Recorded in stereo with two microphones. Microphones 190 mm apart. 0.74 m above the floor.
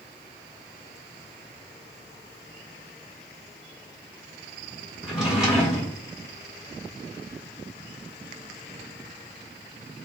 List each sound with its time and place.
5.0 s a drawer: 5° right (ahead or behind), 1.1 m